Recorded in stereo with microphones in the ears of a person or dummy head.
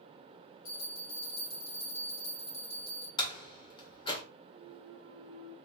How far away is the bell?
About 1.5 m.